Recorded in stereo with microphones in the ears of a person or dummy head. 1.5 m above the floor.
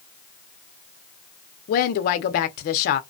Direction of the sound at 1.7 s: 50° left (ahead or behind).